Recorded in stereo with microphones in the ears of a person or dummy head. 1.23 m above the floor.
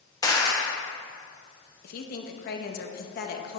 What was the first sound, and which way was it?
A clap, 20° left (ahead or behind).